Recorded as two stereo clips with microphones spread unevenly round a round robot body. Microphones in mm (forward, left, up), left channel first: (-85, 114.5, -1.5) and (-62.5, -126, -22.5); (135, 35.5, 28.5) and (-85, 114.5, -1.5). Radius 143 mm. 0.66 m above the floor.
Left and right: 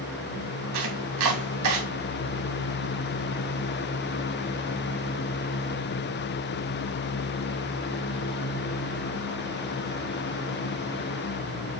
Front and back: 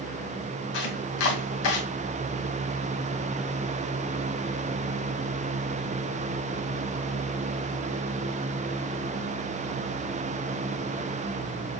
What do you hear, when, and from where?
0.7 s chopping: 50° right, 3 m